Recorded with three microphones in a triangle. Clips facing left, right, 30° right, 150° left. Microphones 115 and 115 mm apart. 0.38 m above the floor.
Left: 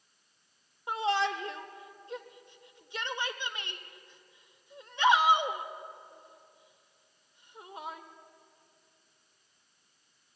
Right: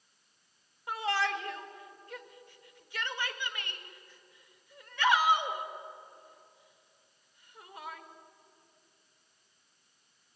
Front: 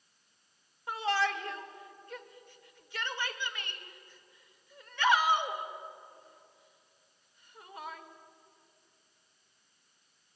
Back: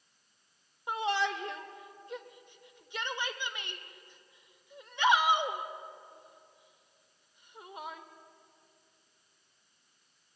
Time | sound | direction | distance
0.9 | a shout | 110° left | 1.2 m